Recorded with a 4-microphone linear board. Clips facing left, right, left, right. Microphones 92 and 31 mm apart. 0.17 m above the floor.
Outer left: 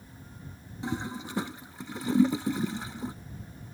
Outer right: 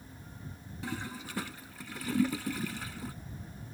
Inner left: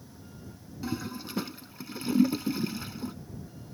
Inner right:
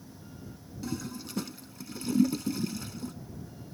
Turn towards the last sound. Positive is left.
turn(degrees=25)  # may be behind; listen again after turning